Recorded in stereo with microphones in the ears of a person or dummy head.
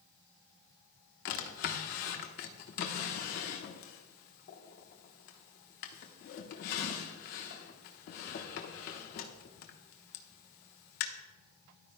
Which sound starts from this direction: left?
A drawer, at 1.2 s.